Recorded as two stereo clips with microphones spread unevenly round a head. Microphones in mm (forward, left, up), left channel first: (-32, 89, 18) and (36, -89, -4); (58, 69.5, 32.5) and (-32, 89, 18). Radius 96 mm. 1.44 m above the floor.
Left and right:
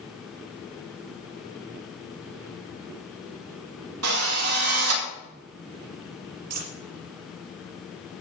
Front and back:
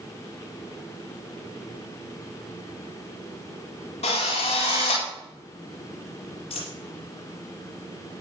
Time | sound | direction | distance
4.0 | a drill | 65° right | 6.5 m
6.5 | a dropped coin | 70° right | 5.5 m